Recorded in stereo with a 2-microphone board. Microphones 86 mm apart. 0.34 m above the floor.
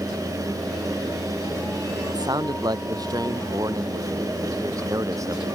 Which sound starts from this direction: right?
A man speaking, at 2.1 s.